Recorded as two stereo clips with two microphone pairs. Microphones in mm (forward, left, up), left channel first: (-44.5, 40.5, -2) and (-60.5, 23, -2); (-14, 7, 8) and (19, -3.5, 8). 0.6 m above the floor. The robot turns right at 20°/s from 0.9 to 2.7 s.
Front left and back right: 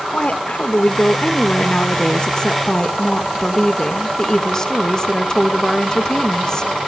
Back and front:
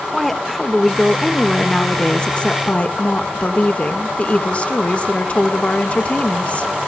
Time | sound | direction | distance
0.1 | a woman speaking | 75° left | 1.7 m